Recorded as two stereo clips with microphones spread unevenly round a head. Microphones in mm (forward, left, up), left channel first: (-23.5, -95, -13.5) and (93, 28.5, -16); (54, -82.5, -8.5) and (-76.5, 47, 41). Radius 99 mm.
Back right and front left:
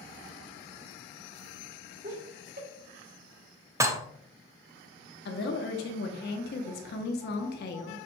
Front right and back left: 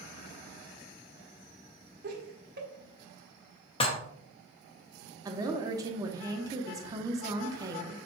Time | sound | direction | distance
2.0 | laughter | 95° left | 1.1 m
3.8 | dishes clattering | 10° left | 0.5 m
5.2 | a woman speaking | 160° right | 0.8 m